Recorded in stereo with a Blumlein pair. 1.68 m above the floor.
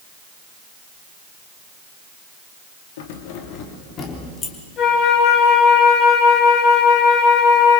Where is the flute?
30° left, 7.5 m.